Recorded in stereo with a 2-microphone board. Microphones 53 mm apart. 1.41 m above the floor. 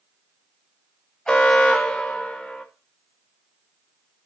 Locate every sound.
1.3 s an alarm: 15° left (ahead or behind), 1.2 m